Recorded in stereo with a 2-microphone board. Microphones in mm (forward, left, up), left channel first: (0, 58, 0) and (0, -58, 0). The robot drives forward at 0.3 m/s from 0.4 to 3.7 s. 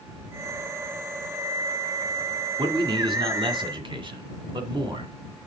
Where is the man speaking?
45° right (ahead or behind), 1.8 m.